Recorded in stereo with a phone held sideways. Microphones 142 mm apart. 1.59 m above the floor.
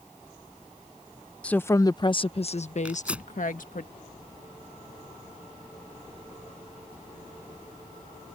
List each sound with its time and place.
1.4 s a woman speaking: 10° left (ahead or behind); by 3.9 s 70° left (ahead or behind)
2.9 s tearing paper: 10° right (ahead or behind)